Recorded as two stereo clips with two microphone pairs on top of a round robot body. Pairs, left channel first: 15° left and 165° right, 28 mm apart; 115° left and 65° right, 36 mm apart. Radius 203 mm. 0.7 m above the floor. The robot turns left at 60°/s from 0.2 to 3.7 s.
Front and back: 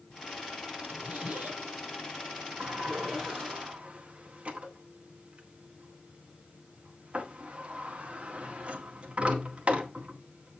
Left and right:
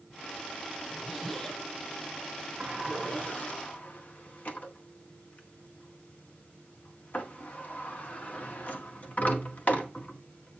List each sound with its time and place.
0.9 s a zipper: 135° right, 6 m; by 3.6 s 60° left, 6 m
2.6 s a sliding door: 140° right, 1.8 m; by 10.6 s 150° left, 1.8 m